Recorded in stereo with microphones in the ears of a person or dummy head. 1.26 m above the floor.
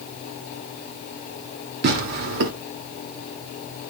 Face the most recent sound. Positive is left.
turn(degrees=-55)  # may be behind; listen again after turning